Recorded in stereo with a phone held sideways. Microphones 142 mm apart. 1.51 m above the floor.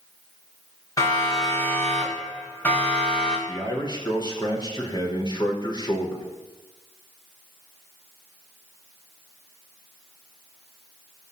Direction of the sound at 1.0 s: 25° left (ahead or behind).